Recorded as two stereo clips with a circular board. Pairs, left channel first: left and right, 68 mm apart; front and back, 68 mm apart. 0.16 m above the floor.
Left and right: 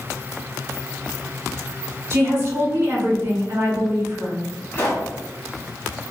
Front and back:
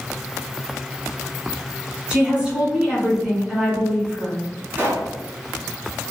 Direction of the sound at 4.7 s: 130° left.